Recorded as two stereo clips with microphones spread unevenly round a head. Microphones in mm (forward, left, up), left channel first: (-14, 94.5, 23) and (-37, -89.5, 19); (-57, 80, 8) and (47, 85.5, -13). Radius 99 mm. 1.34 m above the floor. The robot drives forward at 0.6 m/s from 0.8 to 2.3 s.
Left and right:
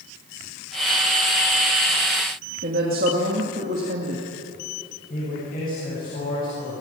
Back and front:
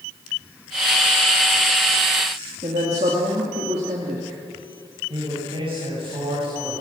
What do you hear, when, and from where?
2.6 s a woman speaking: 50° right, 2 m
5.1 s a man speaking: 35° left, 8.5 m